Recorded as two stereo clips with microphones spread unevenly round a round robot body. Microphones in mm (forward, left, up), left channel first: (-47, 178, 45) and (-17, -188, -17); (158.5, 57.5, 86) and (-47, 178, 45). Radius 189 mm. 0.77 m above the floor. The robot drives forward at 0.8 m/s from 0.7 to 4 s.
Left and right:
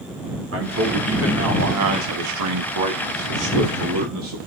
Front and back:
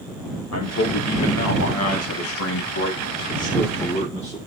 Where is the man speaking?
35° right, 2.5 m; by 4.4 s 110° right, 1.7 m.